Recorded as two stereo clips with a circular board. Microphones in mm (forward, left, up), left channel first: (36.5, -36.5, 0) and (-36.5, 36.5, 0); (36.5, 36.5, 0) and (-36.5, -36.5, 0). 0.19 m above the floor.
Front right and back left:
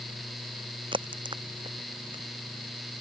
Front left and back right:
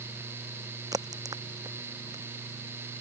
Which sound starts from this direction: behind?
A crack, at 0.9 s.